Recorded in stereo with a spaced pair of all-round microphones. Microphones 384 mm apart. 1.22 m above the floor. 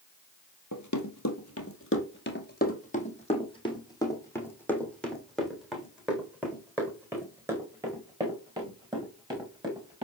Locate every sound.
0.7 s running footsteps: 50° left (ahead or behind), 2 m; by 10.0 s 10° right (ahead or behind), 7 m